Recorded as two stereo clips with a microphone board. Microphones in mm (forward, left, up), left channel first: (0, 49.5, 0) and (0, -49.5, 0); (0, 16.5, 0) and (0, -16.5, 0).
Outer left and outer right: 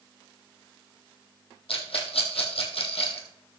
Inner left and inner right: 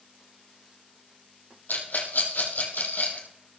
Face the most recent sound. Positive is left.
turn(degrees=75)  # may be behind; listen again after turning